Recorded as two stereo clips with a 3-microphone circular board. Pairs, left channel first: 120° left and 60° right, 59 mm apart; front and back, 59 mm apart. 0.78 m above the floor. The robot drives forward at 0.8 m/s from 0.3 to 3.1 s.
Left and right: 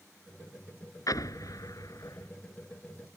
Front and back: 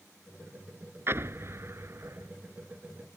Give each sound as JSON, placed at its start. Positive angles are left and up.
{"t": 1.1, "sound": "an explosion", "azimuth_deg": 130}